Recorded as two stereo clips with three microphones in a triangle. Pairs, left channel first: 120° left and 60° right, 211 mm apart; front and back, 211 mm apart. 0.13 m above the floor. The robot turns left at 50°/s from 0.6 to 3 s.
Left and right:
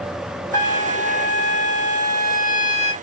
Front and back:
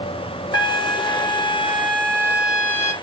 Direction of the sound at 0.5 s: 175° right.